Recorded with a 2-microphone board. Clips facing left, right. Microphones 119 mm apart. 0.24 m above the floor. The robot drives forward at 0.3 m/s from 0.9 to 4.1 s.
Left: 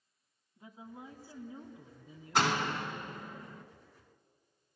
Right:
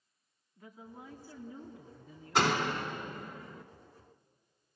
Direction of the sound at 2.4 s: Centre (ahead or behind).